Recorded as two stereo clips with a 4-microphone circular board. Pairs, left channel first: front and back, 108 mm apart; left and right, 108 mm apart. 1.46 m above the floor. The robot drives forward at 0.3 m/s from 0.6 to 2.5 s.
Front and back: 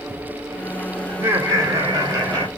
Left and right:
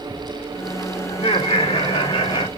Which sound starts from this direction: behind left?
Laughter, at 1.1 s.